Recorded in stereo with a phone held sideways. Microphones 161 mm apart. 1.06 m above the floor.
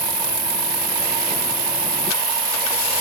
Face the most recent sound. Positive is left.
turn(degrees=50)  # may be behind; listen again after turning